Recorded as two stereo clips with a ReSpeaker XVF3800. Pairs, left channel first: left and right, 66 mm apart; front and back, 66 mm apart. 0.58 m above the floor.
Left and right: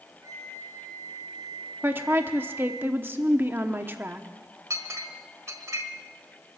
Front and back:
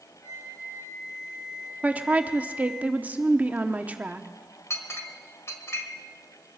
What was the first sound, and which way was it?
A flute, 50° right.